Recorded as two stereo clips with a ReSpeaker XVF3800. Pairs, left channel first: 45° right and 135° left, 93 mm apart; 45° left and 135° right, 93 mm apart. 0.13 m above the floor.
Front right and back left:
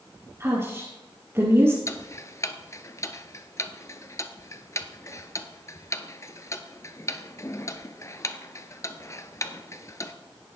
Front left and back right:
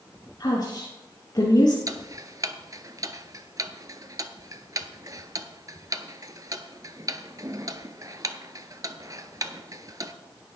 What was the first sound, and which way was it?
A woman speaking, 75° left.